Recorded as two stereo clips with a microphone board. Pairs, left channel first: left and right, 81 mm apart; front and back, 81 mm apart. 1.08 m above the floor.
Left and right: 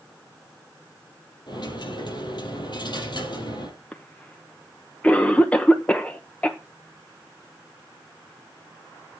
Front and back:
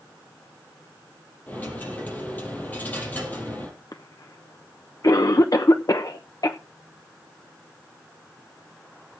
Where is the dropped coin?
70° left, 4 m.